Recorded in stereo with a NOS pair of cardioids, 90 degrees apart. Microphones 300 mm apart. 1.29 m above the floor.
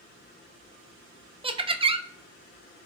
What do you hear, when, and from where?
1.4 s laughter: 20° right, 0.6 m